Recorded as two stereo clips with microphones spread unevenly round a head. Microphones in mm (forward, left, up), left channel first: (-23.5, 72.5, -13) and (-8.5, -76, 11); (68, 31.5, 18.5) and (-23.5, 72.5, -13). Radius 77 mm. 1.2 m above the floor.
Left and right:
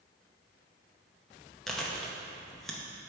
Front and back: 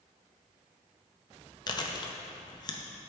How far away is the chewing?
About 0.6 m.